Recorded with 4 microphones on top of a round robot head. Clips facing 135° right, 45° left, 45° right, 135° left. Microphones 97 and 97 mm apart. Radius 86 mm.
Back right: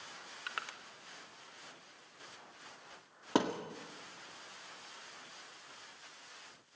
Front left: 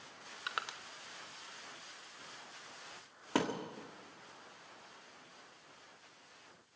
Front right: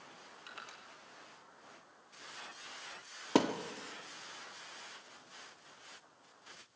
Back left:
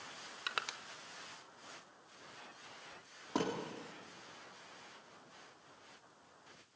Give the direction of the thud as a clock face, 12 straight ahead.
2 o'clock.